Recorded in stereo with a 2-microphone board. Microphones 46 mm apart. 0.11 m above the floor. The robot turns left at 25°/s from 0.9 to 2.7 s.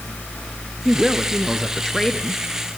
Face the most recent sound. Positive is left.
turn(degrees=145)